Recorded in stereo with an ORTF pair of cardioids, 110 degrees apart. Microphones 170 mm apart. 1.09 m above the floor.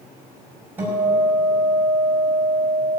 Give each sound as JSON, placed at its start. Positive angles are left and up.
{"t": 0.8, "sound": "a guitar", "azimuth_deg": -10, "distance_m": 6.0}